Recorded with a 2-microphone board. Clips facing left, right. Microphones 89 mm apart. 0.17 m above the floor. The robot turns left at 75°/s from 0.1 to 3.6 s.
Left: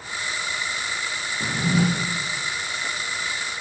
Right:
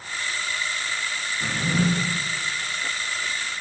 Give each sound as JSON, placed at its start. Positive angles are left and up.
{"t": 1.4, "sound": "a drawer", "azimuth_deg": 90, "distance_m": 2.5}